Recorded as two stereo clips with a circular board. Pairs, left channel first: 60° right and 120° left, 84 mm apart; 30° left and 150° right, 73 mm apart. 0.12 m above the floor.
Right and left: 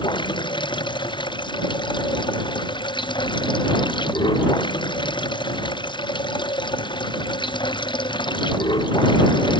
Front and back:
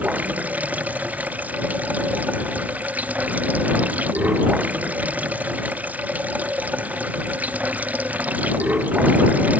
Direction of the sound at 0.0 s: 85° right.